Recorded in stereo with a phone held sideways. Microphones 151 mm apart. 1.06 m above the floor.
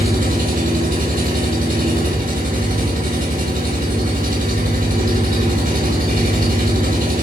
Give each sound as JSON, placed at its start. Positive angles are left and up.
{"t": 0.0, "sound": "an engine running", "side_deg": -70, "distance_m": 4.5}